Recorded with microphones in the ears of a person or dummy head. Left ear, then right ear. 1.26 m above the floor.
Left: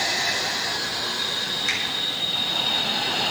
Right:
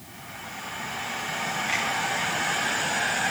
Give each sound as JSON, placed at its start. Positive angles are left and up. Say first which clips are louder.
{"t": 1.7, "sound": "a finger snap", "louder": "left 1 dB", "side_deg": 70, "distance_m": 7.5}